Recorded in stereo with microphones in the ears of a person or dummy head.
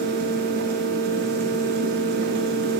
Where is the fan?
50° right (ahead or behind), 0.7 m.